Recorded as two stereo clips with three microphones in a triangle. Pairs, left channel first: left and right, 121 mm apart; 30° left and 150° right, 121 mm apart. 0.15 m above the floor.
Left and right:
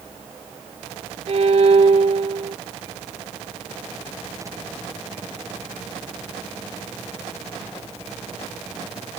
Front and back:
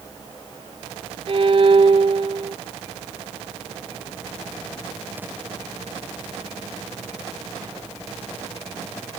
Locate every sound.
1.3 s a violin: 115° right, 0.8 m